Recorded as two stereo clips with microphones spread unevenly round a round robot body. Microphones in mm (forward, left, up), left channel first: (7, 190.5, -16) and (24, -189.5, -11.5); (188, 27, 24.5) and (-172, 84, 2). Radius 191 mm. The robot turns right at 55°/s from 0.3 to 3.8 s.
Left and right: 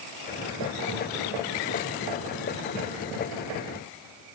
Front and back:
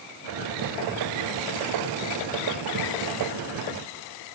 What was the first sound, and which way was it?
Only background noise.